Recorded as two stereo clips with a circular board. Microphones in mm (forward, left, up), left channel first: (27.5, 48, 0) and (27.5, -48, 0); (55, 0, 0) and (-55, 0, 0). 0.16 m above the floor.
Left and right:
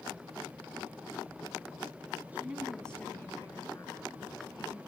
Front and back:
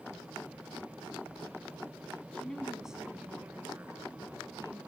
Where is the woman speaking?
55° right, 1.3 m; by 4.8 s 120° left, 3 m.